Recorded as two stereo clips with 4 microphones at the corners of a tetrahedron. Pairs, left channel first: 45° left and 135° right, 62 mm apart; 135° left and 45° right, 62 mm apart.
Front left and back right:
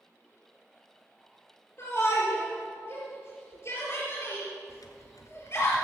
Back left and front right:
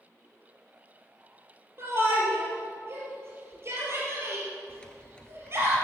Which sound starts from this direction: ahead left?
Typing on a keyboard, at 4.7 s.